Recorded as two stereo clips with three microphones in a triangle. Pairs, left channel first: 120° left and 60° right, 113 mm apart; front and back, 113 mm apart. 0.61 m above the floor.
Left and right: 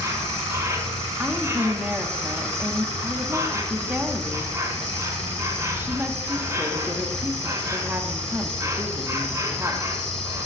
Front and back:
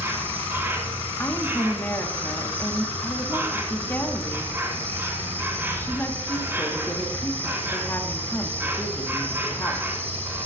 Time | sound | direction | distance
0.0 | an insect | 115° right | 2.5 m
1.2 | a woman speaking | 25° right | 0.9 m